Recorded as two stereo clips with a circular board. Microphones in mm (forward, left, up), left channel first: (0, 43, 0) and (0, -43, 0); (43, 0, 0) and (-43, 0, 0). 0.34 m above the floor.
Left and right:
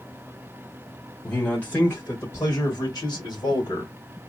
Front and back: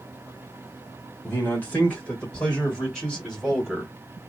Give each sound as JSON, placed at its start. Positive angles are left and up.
{"t": 1.2, "sound": "a man speaking", "azimuth_deg": 25, "distance_m": 1.5}